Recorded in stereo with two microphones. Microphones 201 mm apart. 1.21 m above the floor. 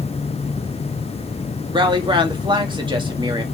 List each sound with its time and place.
1.7 s a woman speaking: 25° right (ahead or behind), 1.9 m